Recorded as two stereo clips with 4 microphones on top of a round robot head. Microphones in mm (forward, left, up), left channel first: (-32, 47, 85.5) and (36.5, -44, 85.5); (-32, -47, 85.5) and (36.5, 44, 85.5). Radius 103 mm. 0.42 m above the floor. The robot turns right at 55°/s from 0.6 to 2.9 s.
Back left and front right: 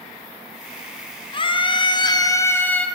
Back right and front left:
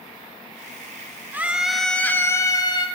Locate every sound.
1.3 s a scream: 120° left, 1.6 m; by 2.9 s 155° right, 1.6 m